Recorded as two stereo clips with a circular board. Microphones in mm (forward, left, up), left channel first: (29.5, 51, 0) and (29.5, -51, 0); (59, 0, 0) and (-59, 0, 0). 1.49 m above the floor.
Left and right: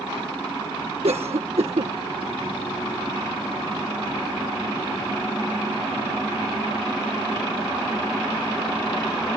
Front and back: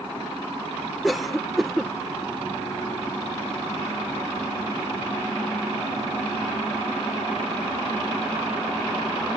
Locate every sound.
1.0 s a cough: 90° right